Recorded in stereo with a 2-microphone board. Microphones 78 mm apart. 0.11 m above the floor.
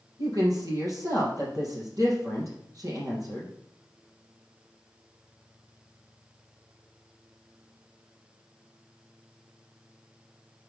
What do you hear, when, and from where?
0.2 s a woman speaking: 45° right (ahead or behind), 3.5 m